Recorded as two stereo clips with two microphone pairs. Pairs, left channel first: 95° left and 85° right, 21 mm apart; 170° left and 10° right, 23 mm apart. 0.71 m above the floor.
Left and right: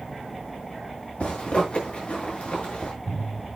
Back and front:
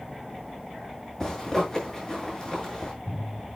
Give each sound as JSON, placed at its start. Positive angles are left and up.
{"t": 1.2, "sound": "a zipper", "azimuth_deg": 110, "distance_m": 6.0}